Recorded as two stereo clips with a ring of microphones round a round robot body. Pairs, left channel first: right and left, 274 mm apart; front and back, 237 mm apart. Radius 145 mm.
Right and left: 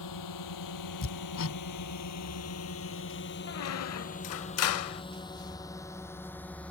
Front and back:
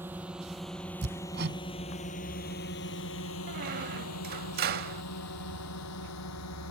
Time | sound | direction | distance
0.0 | a drone | 95° right | ?
1.0 | hammering | 130° right | ?
3.5 | a squeak | 125° right | ?